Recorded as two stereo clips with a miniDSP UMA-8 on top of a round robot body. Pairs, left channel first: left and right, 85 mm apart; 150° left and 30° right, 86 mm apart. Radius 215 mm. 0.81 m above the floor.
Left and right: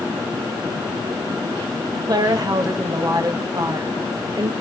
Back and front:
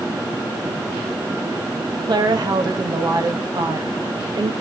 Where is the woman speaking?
55° right, 1.7 m.